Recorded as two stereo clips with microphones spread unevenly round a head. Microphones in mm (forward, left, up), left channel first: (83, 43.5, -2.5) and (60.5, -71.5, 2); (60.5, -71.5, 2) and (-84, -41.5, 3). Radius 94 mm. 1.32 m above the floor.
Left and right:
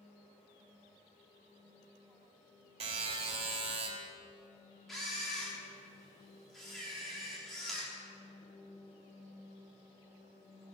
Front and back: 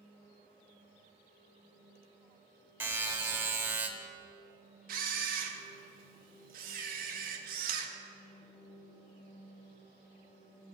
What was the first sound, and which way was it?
A buzzer, 120° right.